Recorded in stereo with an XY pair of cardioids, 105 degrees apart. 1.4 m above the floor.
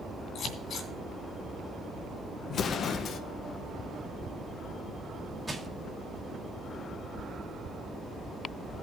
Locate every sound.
0.3 s scissors: 60° left, 3 m
2.5 s an explosion: 60° left, 1.0 m
5.5 s crushing: 10° right, 1.6 m